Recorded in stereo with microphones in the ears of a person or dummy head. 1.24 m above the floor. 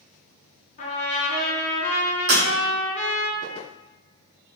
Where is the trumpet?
35° left (ahead or behind), 0.9 m.